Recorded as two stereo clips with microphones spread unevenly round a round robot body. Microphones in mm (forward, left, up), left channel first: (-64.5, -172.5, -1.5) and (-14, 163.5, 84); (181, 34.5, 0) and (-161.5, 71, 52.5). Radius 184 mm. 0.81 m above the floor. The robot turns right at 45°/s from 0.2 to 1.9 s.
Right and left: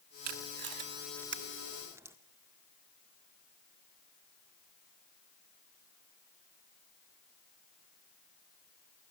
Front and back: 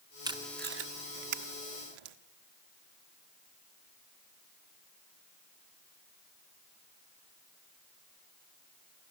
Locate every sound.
0.2 s tape being pulled: 95° left, 1.4 m; by 2.2 s 165° left, 1.4 m